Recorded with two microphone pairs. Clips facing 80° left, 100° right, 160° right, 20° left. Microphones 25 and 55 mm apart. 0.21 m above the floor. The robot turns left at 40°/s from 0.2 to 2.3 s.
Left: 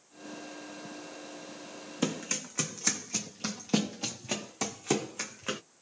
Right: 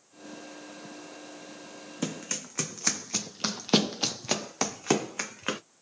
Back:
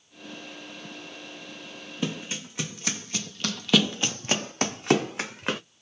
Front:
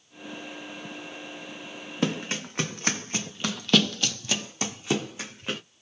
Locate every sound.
2.0 s running footsteps: straight ahead, 1.2 m; by 5.6 s 145° right, 1.4 m